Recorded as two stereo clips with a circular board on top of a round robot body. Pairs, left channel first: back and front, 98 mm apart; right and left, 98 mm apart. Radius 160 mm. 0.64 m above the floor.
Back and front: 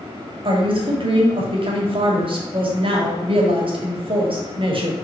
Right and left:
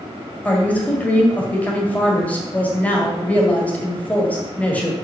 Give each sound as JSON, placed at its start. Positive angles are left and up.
{"t": 0.5, "sound": "a woman speaking", "azimuth_deg": -15, "distance_m": 1.9}